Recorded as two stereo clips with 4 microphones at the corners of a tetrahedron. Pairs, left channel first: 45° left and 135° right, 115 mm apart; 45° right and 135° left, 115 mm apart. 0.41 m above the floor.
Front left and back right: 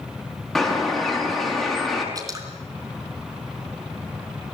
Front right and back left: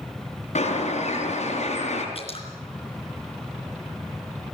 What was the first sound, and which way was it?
A bird, 40° right.